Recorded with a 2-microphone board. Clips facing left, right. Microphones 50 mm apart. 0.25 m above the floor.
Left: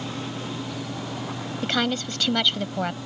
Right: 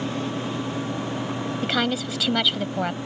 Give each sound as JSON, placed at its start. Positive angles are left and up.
{"t": 1.6, "sound": "a woman speaking", "side_deg": -5}